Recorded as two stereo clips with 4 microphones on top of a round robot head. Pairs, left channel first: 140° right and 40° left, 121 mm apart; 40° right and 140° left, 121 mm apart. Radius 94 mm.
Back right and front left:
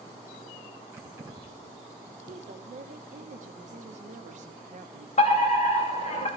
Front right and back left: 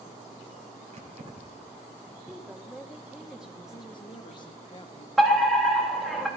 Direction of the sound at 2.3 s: 55° left.